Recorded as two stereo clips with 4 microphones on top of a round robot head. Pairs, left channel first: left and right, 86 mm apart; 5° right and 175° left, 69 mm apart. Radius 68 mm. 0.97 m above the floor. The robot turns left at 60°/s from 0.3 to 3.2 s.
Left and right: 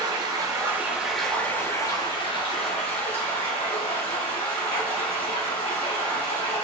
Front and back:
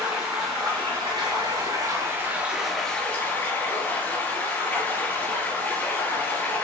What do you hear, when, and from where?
0.0 s running water: 130° right, 4 m; by 6.6 s 55° left, 4 m